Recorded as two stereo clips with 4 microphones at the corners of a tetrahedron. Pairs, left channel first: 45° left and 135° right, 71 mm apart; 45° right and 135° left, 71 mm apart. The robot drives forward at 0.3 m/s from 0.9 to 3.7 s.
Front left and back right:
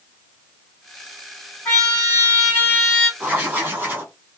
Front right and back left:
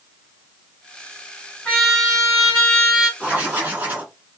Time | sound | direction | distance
1.6 | a trumpet | 20° left | 1.9 m
3.2 | writing | 175° right | 1.1 m